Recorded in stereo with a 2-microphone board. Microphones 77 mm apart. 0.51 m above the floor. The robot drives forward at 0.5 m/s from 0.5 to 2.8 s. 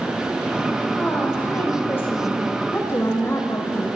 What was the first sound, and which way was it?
A woman speaking, 25° left (ahead or behind).